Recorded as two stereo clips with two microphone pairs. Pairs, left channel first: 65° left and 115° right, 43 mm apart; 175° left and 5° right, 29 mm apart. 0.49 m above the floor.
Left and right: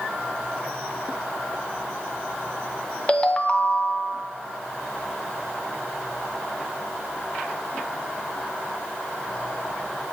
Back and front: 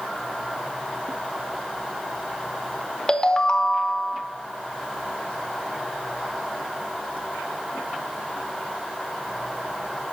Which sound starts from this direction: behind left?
A ringtone, at 3.1 s.